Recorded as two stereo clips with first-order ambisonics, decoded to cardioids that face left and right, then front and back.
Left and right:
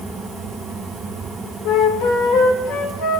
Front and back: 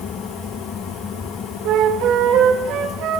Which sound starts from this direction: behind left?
A flute, at 1.6 s.